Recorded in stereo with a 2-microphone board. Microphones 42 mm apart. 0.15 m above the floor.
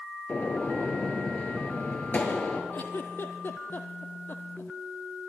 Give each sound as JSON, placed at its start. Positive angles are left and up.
{"t": 0.3, "sound": "a gunshot", "side_deg": 40, "distance_m": 2.0}
{"t": 2.7, "sound": "a giggle", "side_deg": 55, "distance_m": 1.2}